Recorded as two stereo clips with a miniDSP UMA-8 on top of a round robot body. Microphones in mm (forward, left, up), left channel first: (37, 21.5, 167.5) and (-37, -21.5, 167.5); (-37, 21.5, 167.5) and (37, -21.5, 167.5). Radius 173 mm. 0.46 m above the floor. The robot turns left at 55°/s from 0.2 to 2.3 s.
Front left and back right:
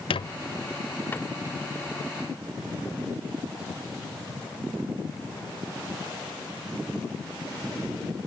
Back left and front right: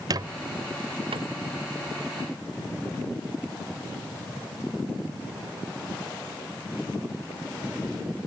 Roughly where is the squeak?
Ahead.